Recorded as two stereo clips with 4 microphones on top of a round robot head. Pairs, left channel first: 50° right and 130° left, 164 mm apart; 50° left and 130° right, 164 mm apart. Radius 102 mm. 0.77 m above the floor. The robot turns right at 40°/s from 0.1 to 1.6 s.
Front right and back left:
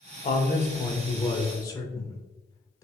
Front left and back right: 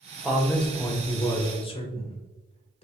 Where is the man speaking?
45° right, 0.9 m; by 2.8 s 10° left, 0.9 m.